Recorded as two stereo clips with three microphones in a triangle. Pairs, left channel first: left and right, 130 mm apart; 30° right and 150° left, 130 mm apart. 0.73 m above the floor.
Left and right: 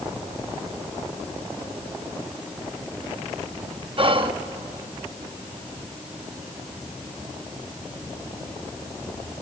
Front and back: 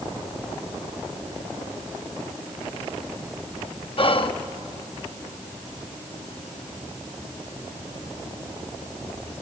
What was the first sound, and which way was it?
Whispering, 60° right.